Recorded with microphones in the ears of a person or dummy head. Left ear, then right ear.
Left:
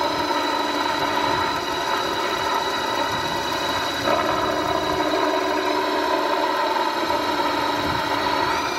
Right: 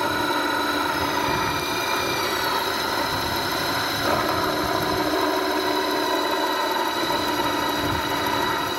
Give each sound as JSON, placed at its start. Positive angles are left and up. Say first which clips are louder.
{"t": 0.0, "sound": "a helicopter", "louder": "left 1 dB", "side_deg": 20}